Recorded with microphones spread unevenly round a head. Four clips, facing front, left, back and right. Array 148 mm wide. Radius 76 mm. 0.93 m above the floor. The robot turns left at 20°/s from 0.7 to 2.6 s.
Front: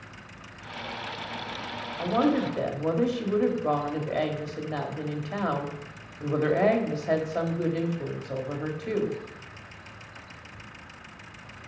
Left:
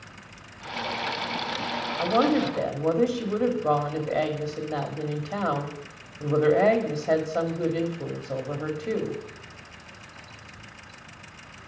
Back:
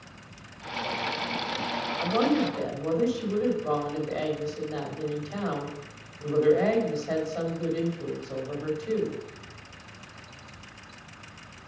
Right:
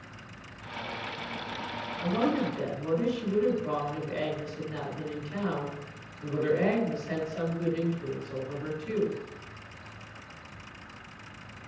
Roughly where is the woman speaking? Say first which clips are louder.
Left 6 dB, front 1 dB; left.